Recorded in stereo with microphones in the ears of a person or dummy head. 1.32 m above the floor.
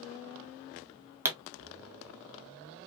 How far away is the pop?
About 0.9 m.